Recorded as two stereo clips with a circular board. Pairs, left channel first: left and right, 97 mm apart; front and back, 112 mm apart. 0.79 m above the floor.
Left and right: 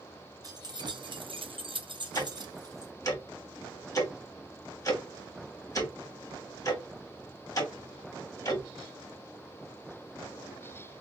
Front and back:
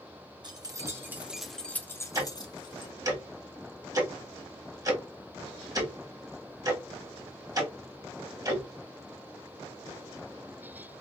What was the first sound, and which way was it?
Keys jangling, 135° right.